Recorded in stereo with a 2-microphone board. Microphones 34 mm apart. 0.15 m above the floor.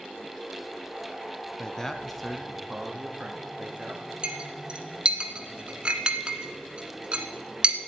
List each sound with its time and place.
1.6 s a man speaking: 25° left (ahead or behind), 1.1 m; by 4.1 s 35° right (ahead or behind), 2 m
4.2 s a clink: 30° right (ahead or behind), 1.3 m